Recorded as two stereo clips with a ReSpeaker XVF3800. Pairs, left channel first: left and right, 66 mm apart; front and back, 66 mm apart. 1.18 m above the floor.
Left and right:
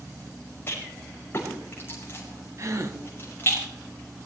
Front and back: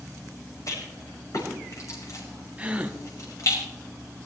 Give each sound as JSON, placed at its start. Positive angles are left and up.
{"t": 0.7, "sound": "a rattle", "azimuth_deg": 30, "distance_m": 5.5}
{"t": 2.6, "sound": "a gasp", "azimuth_deg": -115, "distance_m": 1.1}